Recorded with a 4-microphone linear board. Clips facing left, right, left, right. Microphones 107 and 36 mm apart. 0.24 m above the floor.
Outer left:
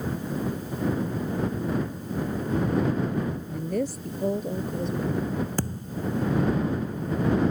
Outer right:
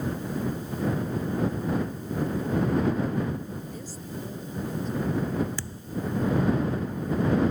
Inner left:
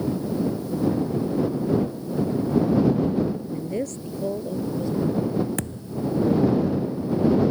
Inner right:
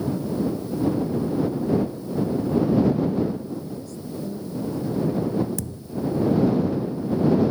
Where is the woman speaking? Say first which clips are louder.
Outer left 9 dB, inner left 4 dB; 75° left (ahead or behind).